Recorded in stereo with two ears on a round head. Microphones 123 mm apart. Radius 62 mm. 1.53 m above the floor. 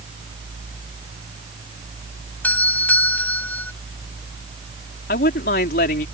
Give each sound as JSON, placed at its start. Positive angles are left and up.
{"t": 2.4, "sound": "a doorbell", "side_deg": 10}
{"t": 5.1, "sound": "a man speaking", "side_deg": 75}